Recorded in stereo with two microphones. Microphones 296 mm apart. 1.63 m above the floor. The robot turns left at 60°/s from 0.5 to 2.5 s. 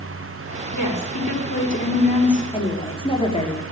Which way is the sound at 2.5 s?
20° left (ahead or behind).